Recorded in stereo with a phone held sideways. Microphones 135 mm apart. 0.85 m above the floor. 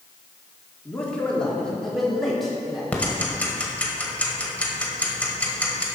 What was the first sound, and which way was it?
A man speaking, 10° left (ahead or behind).